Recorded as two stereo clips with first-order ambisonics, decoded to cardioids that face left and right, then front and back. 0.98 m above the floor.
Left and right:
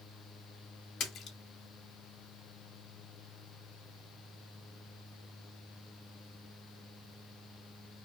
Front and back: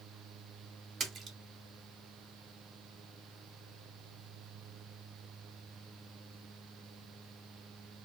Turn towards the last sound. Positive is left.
turn(degrees=130)